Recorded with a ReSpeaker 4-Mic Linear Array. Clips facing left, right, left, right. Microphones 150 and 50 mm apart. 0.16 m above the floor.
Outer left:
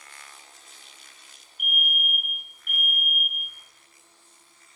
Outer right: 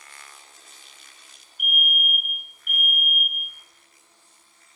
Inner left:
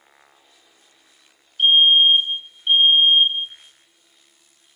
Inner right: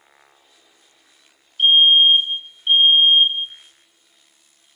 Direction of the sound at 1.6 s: 5° right (ahead or behind).